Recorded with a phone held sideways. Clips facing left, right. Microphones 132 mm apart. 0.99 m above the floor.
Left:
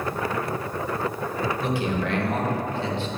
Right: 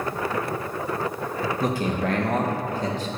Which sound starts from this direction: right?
A man speaking, at 1.6 s.